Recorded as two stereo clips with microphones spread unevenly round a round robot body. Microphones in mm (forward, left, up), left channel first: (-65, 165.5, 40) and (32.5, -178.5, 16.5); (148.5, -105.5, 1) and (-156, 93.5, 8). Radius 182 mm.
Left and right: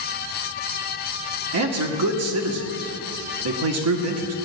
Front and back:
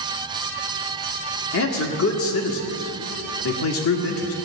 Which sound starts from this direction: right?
A man speaking, at 1.5 s.